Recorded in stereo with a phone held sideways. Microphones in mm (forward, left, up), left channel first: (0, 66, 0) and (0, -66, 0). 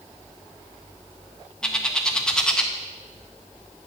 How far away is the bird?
About 0.6 m.